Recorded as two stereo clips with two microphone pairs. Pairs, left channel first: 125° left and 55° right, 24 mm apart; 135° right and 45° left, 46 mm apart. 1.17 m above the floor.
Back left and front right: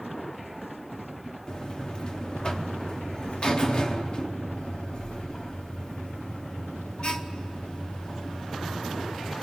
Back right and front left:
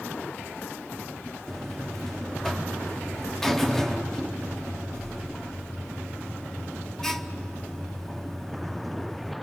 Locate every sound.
1.5 s a buzzer: 150° left, 0.8 m